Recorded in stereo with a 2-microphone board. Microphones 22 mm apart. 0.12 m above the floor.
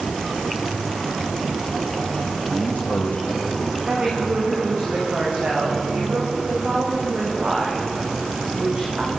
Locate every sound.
2.4 s a man speaking: 80° left, 8 m; by 3.8 s 70° left (ahead or behind), 6.5 m
3.9 s a woman speaking: 50° right (ahead or behind), 8.5 m